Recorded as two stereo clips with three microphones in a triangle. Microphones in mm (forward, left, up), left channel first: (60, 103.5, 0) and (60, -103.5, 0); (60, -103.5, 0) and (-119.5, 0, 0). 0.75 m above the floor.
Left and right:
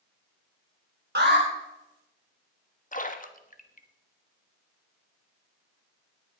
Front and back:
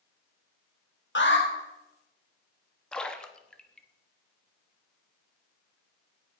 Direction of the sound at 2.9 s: 55° left.